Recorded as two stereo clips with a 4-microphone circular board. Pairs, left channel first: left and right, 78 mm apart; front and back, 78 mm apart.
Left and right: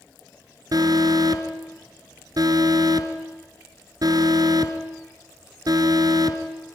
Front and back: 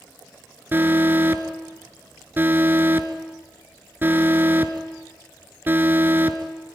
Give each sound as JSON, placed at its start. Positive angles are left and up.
{"t": 0.7, "sound": "an alarm", "azimuth_deg": -120, "distance_m": 1.8}